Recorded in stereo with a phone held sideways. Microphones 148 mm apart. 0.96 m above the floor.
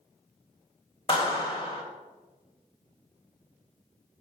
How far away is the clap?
About 1.6 m.